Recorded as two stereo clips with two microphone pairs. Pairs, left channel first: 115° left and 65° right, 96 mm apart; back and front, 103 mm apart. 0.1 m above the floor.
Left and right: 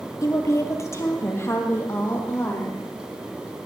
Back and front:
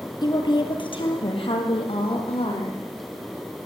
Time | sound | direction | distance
0.2 | a woman speaking | 160° left | 1.8 m